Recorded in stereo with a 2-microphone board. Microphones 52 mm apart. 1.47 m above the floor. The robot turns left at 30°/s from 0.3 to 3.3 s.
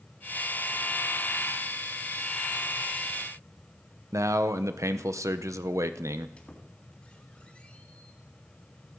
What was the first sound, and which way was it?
A man speaking, 75° right (ahead or behind).